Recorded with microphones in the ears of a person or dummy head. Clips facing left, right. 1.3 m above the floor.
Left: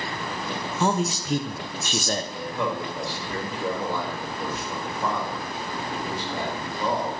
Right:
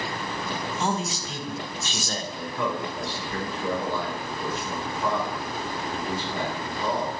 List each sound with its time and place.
0.8 s a man speaking: 50° left (ahead or behind), 0.5 m
2.3 s a man speaking: 45° left (ahead or behind), 2.5 m